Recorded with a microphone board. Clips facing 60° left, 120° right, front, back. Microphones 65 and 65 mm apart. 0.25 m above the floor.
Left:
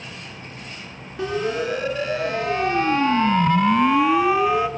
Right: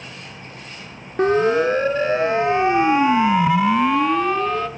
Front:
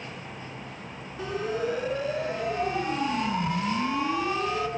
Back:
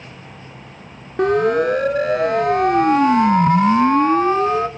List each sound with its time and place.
1.2 s a siren: 165° right, 2.5 m; by 4.7 s 135° left, 2 m